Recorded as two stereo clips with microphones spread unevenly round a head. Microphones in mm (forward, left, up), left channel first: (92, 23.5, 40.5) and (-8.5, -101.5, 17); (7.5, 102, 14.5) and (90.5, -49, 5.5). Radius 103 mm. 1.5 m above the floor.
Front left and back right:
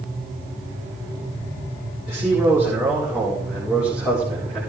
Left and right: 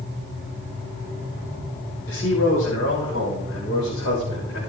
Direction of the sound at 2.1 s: 140° left.